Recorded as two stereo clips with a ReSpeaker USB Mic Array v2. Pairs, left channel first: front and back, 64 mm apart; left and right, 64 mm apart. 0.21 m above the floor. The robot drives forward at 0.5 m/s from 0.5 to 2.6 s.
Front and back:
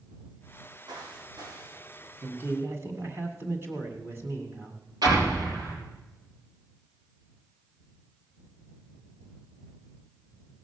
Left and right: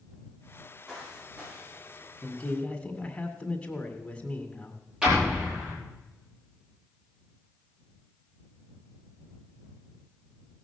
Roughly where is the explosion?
Behind.